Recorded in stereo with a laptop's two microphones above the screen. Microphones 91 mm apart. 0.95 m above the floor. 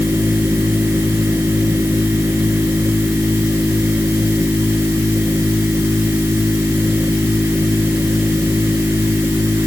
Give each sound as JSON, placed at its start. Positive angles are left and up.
{"t": 0.0, "sound": "a machine running", "side_deg": -25}